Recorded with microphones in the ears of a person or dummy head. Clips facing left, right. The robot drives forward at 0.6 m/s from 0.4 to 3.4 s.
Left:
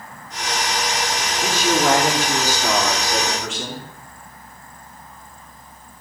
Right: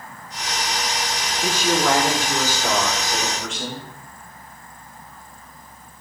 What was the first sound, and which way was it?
A man speaking, 90° left.